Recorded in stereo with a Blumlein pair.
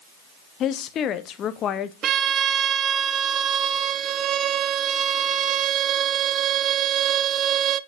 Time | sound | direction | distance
0.6 | a woman speaking | 30° left | 0.9 m
2.0 | a violin | 30° right | 0.5 m